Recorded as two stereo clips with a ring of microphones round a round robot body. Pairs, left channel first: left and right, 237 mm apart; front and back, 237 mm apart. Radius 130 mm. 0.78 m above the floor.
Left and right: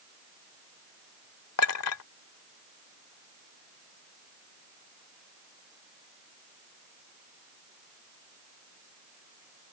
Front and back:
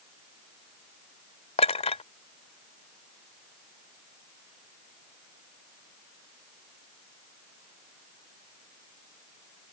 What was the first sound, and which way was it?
A clink, 65° left.